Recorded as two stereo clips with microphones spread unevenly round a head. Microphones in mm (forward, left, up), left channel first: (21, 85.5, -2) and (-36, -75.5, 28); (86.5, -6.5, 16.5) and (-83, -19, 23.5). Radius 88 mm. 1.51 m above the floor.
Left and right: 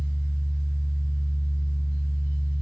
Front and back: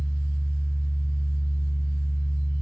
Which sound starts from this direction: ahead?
A fan, at 0.0 s.